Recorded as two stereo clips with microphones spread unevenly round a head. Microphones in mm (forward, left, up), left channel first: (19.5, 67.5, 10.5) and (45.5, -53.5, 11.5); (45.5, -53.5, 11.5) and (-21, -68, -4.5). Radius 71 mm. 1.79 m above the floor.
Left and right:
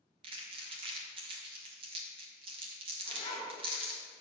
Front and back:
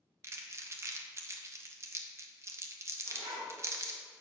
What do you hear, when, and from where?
0.2 s crumpling: 120° right, 1.2 m
3.0 s a zipper: 160° left, 2 m